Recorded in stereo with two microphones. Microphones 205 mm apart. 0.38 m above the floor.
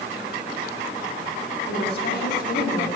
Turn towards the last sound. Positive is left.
turn(degrees=45)  # may be behind; listen again after turning